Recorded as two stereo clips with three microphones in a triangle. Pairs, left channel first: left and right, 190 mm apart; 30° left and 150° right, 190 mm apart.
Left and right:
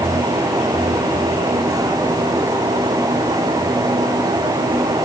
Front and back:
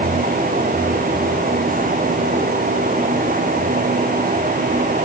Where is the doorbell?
I don't hear a doorbell.